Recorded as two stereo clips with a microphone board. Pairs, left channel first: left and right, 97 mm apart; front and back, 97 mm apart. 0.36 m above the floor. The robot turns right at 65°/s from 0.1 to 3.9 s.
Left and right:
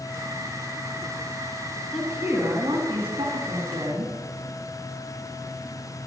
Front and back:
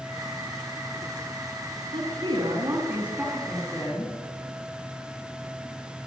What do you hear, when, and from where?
1.9 s a woman speaking: straight behind, 2.5 m; by 4.1 s 50° right, 2.5 m